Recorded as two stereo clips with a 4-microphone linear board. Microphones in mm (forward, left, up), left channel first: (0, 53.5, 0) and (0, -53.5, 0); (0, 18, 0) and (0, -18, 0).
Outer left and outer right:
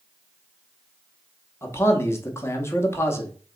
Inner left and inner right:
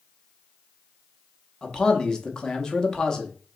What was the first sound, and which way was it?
A man speaking, 25° left (ahead or behind).